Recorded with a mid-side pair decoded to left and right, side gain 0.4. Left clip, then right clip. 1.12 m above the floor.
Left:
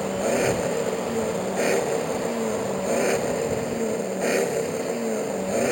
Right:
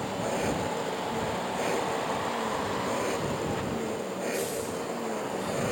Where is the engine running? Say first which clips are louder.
Left 7 dB; 60° left.